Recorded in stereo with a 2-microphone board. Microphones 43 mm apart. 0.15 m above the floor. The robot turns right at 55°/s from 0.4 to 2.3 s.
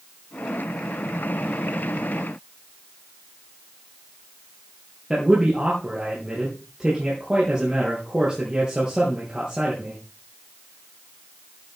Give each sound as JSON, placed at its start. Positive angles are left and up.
{"t": 5.1, "sound": "a man speaking", "side_deg": -20, "distance_m": 3.5}